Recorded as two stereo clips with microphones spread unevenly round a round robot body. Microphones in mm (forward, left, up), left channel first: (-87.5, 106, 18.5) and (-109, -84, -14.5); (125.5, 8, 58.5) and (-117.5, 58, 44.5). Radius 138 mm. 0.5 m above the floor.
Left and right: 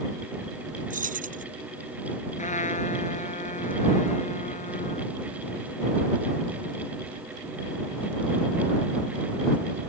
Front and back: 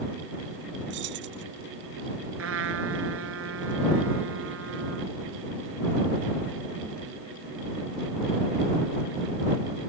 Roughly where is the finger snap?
No finger snap in this recording.